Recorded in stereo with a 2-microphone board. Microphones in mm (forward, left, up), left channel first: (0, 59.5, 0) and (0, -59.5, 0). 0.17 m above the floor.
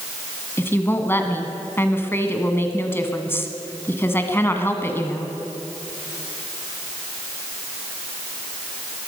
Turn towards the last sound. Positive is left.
turn(degrees=20)  # may be behind; listen again after turning